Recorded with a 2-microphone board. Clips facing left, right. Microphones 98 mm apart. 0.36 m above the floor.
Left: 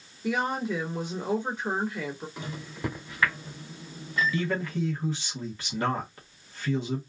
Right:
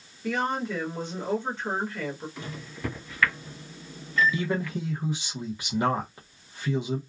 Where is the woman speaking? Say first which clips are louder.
Even; 15° left (ahead or behind), 1.1 m.